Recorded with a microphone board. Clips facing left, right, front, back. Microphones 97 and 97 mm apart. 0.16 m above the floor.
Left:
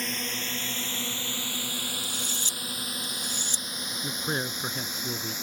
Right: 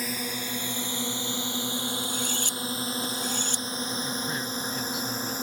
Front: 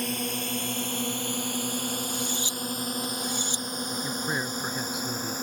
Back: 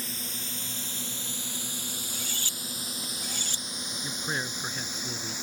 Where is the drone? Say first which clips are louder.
Right 2 dB, front 10 dB; 10° right; by 5.5 s 40° right.